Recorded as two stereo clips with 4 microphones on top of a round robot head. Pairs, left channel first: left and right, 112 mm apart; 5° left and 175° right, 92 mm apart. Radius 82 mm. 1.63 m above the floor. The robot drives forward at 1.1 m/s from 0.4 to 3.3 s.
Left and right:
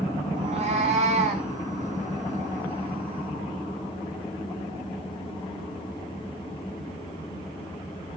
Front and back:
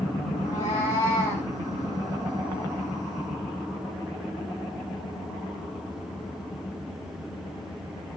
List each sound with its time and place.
0.4 s a cat meowing: 60° right, 6.5 m; by 1.5 s 70° right, 6 m